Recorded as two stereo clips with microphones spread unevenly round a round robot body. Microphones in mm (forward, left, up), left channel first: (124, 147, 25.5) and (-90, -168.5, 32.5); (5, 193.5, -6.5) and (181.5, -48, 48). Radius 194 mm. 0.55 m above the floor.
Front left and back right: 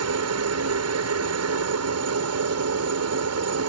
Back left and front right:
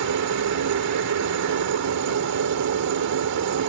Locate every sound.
0.0 s a helicopter: 85° right